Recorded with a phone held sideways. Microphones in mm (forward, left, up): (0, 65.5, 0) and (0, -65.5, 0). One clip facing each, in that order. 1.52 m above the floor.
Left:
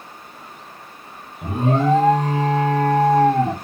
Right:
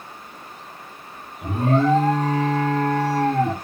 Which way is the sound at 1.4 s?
20° left (ahead or behind).